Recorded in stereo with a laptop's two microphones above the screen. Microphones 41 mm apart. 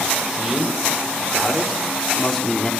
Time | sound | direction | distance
0.2 | a man speaking | 20° right (ahead or behind) | 3 m